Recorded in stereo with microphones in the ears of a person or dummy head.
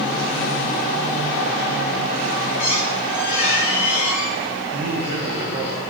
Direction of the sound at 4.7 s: 55° right (ahead or behind).